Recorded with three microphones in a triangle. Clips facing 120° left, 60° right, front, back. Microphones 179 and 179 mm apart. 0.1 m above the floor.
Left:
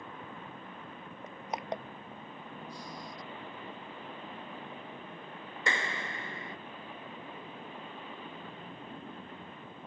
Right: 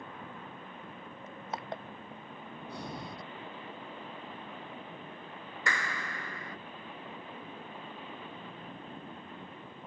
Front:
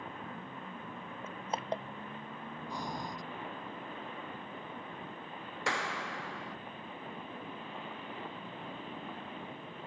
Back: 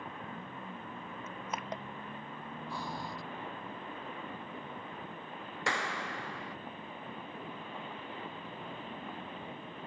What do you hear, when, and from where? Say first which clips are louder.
1.2 s crushing: left 3 dB, front 4 dB; 50° left
2.7 s breathing: right 3 dB, front 1 dB; 75° right
5.7 s a clap: left 2 dB, even; 90° left